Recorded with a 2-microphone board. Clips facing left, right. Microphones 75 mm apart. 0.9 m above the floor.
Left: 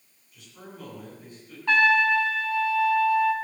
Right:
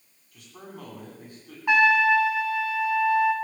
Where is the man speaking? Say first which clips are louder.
Right 2 dB; 70° right (ahead or behind), 9 m.